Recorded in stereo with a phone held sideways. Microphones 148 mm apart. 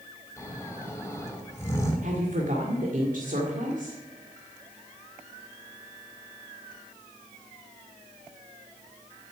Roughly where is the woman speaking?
Right.